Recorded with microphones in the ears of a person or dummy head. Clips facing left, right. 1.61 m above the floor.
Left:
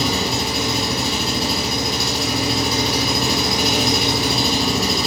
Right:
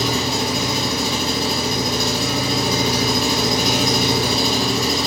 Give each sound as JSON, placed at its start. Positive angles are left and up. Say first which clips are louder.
{"t": 0.0, "sound": "an engine running", "louder": "even", "side_deg": 0, "distance_m": 0.7}